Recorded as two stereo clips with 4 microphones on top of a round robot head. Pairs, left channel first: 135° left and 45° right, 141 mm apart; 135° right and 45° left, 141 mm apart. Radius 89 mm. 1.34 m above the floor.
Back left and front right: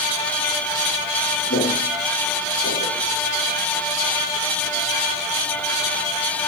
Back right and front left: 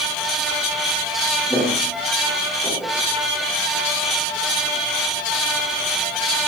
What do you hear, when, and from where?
1.5 s footsteps: 130° left, 9 m